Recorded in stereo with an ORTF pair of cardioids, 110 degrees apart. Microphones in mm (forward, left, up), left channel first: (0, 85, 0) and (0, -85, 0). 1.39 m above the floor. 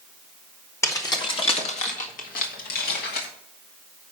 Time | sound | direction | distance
0.8 | keys jangling | 15° left | 1.5 m